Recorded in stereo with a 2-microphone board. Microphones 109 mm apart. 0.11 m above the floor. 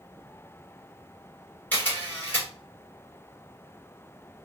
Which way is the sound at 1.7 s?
15° left (ahead or behind).